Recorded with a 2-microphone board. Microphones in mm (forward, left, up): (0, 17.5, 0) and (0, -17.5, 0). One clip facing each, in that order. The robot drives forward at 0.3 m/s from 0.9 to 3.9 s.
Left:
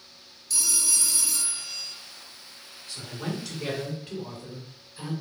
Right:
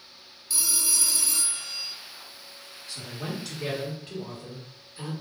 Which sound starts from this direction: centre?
A man speaking, at 2.9 s.